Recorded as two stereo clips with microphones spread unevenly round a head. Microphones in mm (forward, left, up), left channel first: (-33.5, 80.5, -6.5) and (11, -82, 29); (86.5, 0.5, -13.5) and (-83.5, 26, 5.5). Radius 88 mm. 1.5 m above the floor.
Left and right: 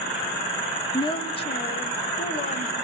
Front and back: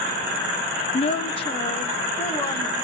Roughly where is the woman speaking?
Ahead left.